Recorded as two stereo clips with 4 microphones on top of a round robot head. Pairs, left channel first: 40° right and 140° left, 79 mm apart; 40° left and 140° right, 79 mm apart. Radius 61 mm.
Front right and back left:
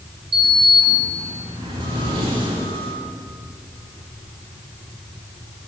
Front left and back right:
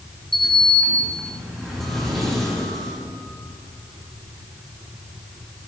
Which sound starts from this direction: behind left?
A sliding door, at 0.3 s.